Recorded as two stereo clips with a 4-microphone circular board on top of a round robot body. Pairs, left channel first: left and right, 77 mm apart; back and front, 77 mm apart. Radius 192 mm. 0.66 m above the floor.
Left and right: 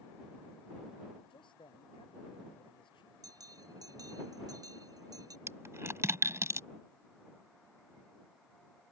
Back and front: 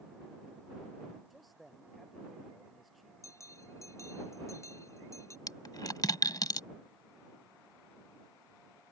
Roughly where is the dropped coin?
Behind right.